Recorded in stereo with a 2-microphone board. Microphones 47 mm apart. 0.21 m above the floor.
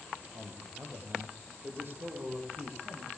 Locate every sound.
0.3 s a man speaking: 40° right (ahead or behind), 8 m; by 3.1 s 55° right (ahead or behind), 9 m